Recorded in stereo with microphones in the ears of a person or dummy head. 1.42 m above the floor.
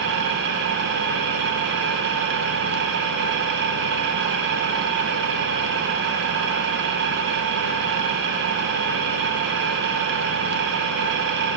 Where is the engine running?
65° right (ahead or behind), 0.8 m.